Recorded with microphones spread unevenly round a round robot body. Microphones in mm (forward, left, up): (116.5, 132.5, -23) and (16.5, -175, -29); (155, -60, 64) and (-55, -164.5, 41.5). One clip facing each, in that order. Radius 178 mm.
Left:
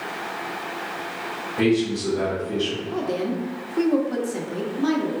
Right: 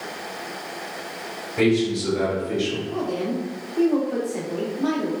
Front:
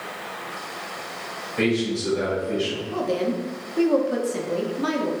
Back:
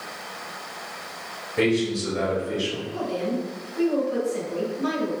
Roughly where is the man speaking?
Behind right.